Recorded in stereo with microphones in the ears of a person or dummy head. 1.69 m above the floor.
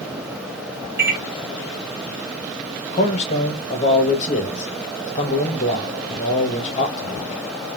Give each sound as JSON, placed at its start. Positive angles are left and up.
{"t": 1.0, "sound": "a microwave", "side_deg": -10, "distance_m": 2.0}
{"t": 2.9, "sound": "a man speaking", "side_deg": 40, "distance_m": 1.1}